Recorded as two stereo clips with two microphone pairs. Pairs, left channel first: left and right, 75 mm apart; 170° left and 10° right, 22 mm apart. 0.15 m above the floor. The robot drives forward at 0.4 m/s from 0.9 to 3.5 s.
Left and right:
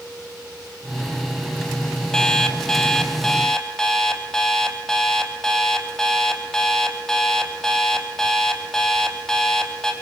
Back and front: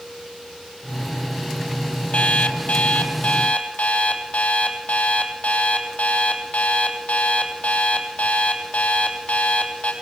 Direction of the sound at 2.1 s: 170° left.